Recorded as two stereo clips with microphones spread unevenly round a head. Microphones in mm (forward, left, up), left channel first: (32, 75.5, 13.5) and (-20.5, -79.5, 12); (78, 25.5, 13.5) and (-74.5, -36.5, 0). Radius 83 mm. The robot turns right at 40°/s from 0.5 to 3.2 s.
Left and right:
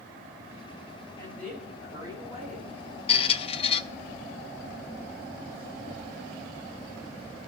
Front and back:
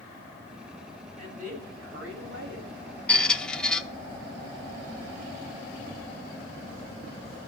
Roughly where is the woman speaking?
Behind left.